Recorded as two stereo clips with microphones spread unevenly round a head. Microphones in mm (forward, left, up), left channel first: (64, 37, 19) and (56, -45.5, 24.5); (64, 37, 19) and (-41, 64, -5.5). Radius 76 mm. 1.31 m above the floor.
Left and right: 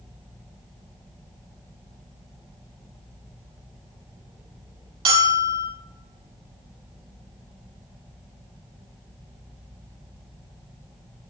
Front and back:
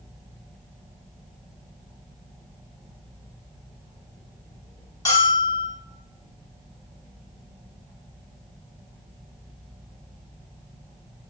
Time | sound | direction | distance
5.0 | a bell | 85° right | 4 m